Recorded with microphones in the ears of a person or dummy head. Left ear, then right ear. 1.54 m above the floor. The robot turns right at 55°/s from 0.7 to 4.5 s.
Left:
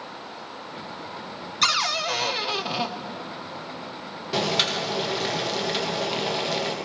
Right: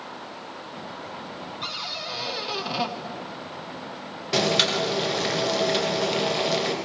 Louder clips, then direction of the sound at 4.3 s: Right 2 dB; 15° right (ahead or behind).